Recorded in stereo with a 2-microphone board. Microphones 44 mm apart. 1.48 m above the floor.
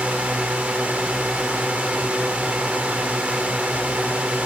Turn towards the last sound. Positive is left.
turn(degrees=-30)  # may be behind; listen again after turning